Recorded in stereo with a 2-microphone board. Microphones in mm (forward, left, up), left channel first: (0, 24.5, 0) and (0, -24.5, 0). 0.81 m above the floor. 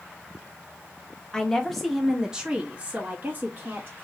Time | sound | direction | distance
1.3 | a woman speaking | 15° left (ahead or behind) | 1.0 m